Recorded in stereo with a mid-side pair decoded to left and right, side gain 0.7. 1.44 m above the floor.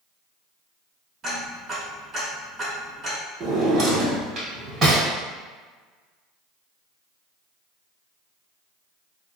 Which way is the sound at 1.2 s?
30° right.